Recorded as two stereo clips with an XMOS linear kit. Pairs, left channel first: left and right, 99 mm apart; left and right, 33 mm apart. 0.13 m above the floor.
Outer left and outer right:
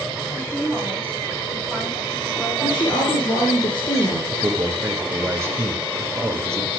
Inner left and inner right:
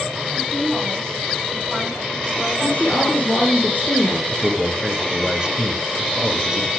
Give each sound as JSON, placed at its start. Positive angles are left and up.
{"t": 0.3, "sound": "a woman speaking", "side_deg": 15, "distance_m": 7.0}
{"t": 2.6, "sound": "a woman speaking", "side_deg": 55, "distance_m": 3.0}
{"t": 4.3, "sound": "a man speaking", "side_deg": -25, "distance_m": 2.0}